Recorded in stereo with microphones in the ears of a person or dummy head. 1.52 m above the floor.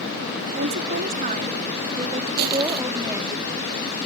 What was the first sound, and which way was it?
A woman speaking, 55° right (ahead or behind).